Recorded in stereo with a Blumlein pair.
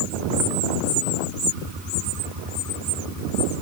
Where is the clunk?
I don't hear a clunk.